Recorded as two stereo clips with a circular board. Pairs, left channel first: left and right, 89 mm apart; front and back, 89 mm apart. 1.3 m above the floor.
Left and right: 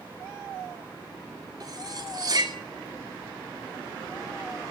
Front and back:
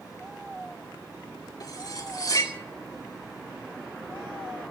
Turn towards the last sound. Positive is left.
turn(degrees=-45)